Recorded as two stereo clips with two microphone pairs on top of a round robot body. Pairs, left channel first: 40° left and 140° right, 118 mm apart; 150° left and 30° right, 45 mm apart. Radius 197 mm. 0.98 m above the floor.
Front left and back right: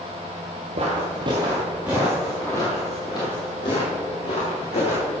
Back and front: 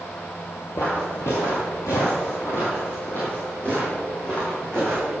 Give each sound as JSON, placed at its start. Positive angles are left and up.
{"t": 0.8, "sound": "footsteps", "azimuth_deg": 180, "distance_m": 1.4}